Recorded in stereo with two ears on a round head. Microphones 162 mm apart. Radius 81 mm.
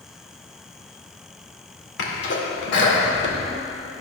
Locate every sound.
2.0 s a sneeze: 65° left (ahead or behind), 2 m